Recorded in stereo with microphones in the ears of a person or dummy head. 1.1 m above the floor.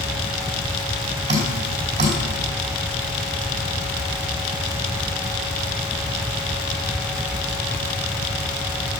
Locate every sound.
1.3 s dripping: 30° right (ahead or behind), 4 m